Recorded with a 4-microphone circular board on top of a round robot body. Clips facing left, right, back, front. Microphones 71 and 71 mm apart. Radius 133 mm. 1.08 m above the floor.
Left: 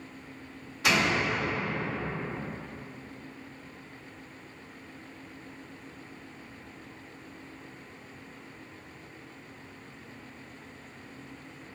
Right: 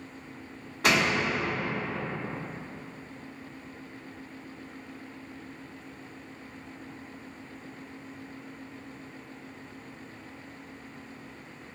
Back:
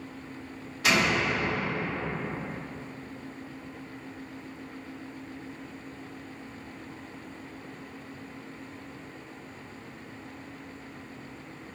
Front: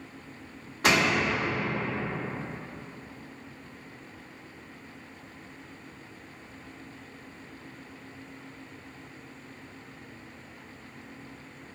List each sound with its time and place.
0.8 s a door slam: 45° right, 2 m